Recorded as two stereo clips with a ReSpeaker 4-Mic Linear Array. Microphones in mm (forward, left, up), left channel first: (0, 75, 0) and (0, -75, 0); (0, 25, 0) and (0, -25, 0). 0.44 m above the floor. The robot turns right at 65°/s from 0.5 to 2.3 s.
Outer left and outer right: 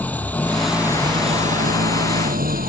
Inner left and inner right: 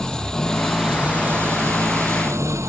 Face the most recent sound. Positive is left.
turn(degrees=-75)